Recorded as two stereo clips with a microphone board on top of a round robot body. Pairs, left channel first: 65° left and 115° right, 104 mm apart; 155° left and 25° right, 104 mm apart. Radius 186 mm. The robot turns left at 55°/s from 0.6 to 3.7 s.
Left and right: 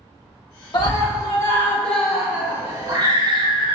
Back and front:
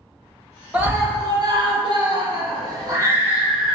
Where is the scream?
50° left, 1.3 m; by 3.8 s 115° right, 1.3 m.